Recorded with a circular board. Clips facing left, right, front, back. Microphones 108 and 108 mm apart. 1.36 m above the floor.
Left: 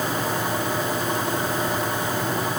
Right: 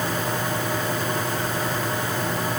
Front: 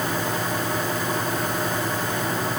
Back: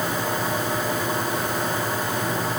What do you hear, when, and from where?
Only background noise.